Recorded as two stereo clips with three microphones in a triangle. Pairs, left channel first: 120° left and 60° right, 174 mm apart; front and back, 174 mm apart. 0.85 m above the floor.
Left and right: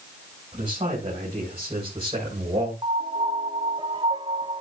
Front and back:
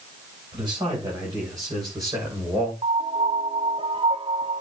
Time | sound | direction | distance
0.5 | a man speaking | 115° right | 4 m
2.8 | a piano | 120° right | 0.5 m